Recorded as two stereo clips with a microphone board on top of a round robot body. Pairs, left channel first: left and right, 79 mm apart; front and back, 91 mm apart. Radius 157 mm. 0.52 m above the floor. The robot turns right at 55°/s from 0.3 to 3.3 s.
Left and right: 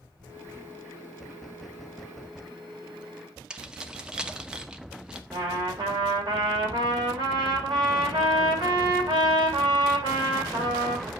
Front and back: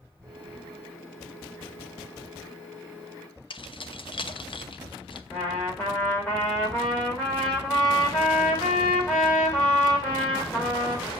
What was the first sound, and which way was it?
Keys jangling, 10° right.